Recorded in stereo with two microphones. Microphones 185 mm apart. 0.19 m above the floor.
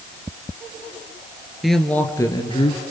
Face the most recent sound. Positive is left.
turn(degrees=35)  # may be behind; listen again after turning